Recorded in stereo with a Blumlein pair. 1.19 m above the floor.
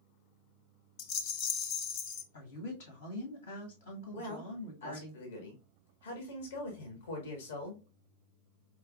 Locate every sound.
1.0 s a rattle: 45° left, 0.6 m
2.3 s a woman speaking: 65° left, 1.5 m
4.1 s a man speaking: 60° left, 1.2 m